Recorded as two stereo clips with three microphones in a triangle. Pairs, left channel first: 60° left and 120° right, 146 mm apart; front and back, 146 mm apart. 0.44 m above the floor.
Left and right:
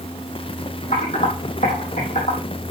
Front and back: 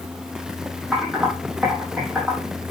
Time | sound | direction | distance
0.9 | typing on a keyboard | 90° left | 4.5 m